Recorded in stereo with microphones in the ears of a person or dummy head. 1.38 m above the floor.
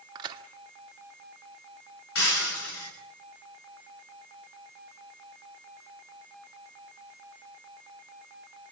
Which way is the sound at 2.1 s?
70° left (ahead or behind).